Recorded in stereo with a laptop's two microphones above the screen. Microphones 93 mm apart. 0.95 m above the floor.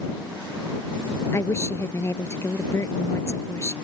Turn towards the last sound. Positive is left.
turn(degrees=30)  # may be behind; listen again after turning